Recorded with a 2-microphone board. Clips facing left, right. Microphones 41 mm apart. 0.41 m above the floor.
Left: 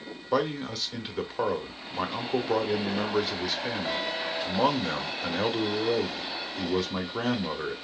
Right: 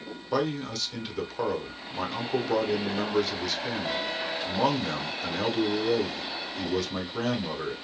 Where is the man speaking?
15° left (ahead or behind), 0.8 m.